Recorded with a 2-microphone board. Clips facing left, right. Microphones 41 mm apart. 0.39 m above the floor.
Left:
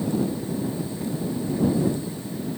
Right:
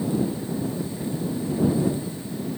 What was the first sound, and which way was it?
Only background noise.